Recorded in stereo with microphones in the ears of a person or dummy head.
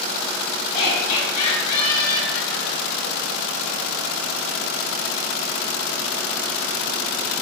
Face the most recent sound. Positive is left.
turn(degrees=20)  # may be behind; listen again after turning